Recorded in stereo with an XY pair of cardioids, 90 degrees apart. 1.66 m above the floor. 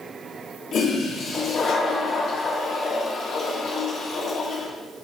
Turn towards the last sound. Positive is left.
turn(degrees=70)